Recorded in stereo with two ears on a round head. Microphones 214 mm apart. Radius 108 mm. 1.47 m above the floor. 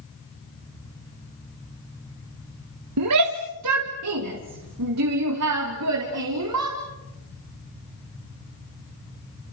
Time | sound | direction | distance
3.0 | a shout | 90° right | 1.5 m